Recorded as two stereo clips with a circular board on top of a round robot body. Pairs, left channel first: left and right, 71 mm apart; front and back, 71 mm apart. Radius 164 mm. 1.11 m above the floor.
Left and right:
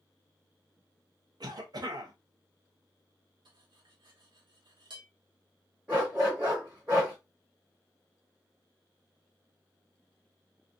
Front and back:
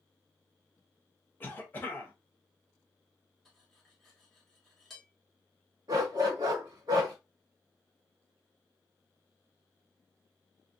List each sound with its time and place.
1.4 s a cough: 65° right, 1.0 m
3.5 s cutlery clinking: 90° right, 0.7 m
5.9 s a dog barking: 150° right, 0.9 m